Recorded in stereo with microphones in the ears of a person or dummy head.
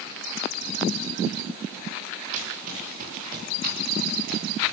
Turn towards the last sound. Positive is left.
turn(degrees=-60)  # may be behind; listen again after turning